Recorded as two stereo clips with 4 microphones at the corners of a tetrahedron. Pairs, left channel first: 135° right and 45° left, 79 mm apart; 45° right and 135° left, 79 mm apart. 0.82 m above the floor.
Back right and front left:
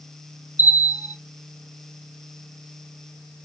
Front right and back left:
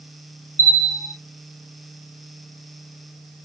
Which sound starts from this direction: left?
A bell, at 0.6 s.